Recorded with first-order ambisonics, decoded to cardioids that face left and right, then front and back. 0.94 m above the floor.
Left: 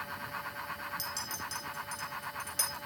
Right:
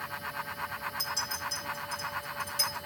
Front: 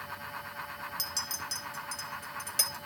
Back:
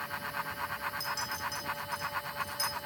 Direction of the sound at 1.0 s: 10° left.